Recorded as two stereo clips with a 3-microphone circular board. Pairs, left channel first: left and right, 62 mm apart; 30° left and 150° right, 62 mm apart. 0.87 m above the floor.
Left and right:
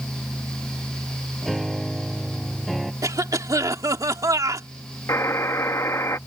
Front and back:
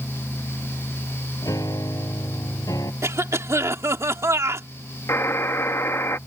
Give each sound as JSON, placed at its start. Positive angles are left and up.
{"t": 1.4, "sound": "a piano", "azimuth_deg": 0}
{"t": 3.0, "sound": "a cough", "azimuth_deg": -110}
{"t": 5.1, "sound": "a buzzer", "azimuth_deg": 65}